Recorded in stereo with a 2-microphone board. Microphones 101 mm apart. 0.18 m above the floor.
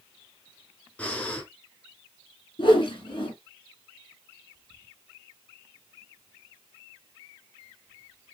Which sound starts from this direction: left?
A whoosh, at 2.6 s.